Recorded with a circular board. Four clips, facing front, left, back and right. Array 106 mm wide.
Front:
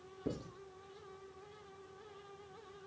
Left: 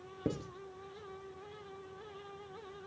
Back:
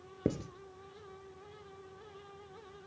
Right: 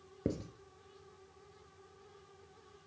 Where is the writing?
175° right, 1.2 m.